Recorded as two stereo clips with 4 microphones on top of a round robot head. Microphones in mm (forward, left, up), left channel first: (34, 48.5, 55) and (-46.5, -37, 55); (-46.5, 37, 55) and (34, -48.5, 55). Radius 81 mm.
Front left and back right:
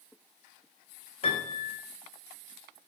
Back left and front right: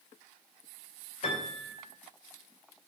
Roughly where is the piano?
Left.